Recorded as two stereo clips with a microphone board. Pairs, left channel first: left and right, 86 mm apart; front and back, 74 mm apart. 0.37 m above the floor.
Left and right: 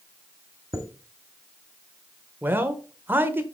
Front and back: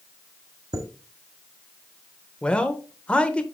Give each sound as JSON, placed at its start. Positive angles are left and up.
{"t": 0.7, "sound": "a chime", "azimuth_deg": -150, "distance_m": 1.2}
{"t": 2.4, "sound": "a man speaking", "azimuth_deg": -60, "distance_m": 0.9}